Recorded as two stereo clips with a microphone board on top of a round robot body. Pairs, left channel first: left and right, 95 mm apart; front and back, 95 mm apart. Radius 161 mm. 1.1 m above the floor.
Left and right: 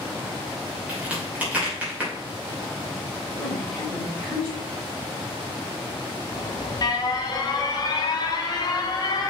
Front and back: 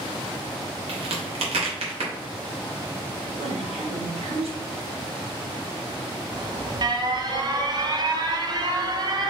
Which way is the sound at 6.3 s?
135° left.